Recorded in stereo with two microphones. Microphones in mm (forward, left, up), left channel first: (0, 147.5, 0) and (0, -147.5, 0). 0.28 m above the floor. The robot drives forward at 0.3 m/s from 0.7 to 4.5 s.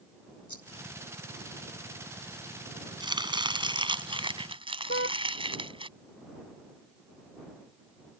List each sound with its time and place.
0.5 s a rattle: 80° left
3.0 s chopping: 15° right (ahead or behind); by 5.9 s 20° right (ahead or behind)
4.9 s a car horn: 45° left (ahead or behind)